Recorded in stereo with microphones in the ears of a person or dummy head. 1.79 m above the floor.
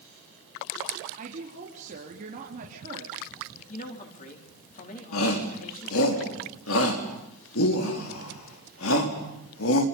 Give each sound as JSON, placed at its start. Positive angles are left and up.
{"t": 1.2, "sound": "a woman speaking", "side_deg": -40, "distance_m": 4.0}
{"t": 3.7, "sound": "a man speaking", "side_deg": 40, "distance_m": 4.5}
{"t": 5.1, "sound": "a shout", "side_deg": 85, "distance_m": 4.0}